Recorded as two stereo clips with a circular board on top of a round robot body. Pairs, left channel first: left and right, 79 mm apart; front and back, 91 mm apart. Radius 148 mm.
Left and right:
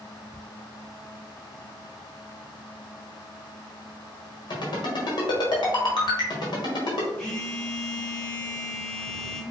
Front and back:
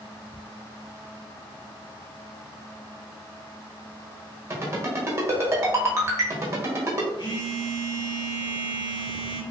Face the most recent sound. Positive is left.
turn(degrees=15)